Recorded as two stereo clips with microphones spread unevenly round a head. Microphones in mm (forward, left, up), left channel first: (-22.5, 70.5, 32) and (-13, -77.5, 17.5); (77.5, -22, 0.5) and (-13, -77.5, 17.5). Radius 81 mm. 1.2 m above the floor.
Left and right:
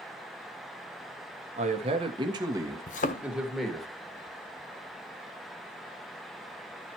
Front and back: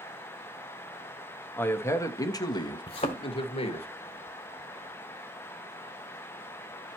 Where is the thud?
75° left, 1.1 m.